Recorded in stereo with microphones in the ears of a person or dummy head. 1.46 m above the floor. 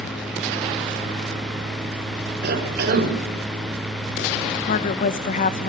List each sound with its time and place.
2.4 s a cough: 65° right (ahead or behind), 6.5 m
4.7 s a woman speaking: 45° left (ahead or behind), 1.5 m